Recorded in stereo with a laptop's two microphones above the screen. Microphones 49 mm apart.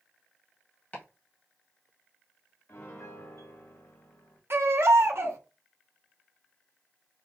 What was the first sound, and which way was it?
Chopping, 35° left (ahead or behind).